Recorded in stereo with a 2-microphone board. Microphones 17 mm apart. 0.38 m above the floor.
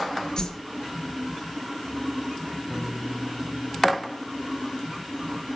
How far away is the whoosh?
About 3.5 m.